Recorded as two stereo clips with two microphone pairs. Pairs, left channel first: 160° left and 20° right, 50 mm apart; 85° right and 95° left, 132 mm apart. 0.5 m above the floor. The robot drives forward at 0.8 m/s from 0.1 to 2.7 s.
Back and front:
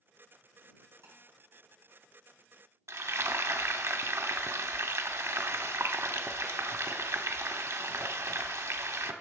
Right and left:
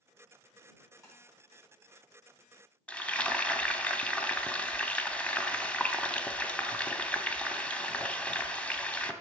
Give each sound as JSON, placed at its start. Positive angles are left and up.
{"t": 1.0, "sound": "tapping", "azimuth_deg": -20, "distance_m": 3.5}
{"t": 2.9, "sound": "frying", "azimuth_deg": -10, "distance_m": 0.6}